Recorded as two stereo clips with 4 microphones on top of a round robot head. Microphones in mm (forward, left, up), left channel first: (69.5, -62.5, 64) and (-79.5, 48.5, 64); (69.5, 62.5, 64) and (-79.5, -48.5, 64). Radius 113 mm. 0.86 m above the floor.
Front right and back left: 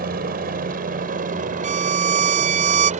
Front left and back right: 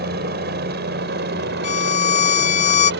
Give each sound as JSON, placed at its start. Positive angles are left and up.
{"t": 0.0, "sound": "a helicopter", "azimuth_deg": -175}
{"t": 1.6, "sound": "a violin", "azimuth_deg": 90}